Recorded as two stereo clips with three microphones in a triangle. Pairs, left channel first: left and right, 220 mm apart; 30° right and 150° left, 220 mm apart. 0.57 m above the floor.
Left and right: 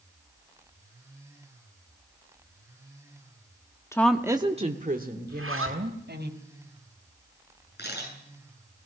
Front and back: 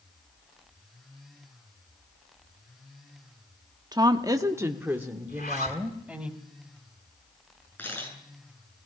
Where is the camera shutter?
50° left, 9 m.